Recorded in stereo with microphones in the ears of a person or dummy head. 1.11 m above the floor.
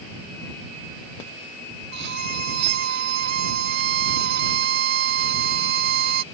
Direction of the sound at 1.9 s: 65° right (ahead or behind).